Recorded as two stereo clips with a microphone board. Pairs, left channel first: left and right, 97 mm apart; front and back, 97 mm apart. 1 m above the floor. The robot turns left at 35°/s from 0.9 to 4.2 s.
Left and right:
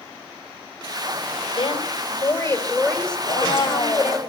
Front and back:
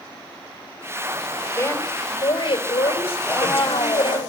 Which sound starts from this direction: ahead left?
A woman speaking, at 1.5 s.